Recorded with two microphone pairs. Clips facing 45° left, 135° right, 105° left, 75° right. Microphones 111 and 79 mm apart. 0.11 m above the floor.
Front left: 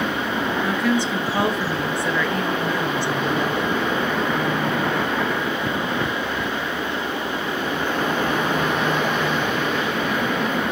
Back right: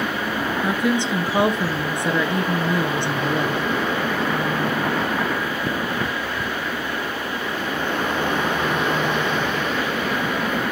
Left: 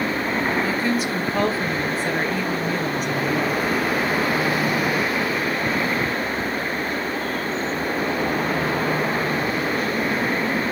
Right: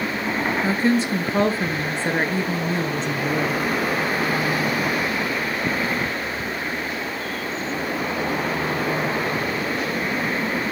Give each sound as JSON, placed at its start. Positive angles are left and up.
{"t": 0.6, "sound": "a woman speaking", "azimuth_deg": -90, "distance_m": 1.2}